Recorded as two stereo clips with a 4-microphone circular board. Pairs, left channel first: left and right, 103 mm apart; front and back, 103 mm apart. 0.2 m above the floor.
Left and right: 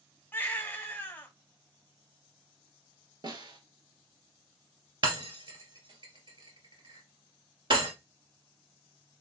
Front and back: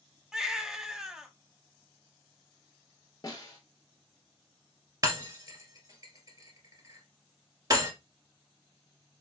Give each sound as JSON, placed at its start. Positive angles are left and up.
{"t": 0.3, "sound": "a baby crying", "azimuth_deg": 110, "distance_m": 1.1}
{"t": 3.2, "sound": "a snare drum", "azimuth_deg": -50, "distance_m": 1.6}
{"t": 5.0, "sound": "breaking glass", "azimuth_deg": -130, "distance_m": 2.5}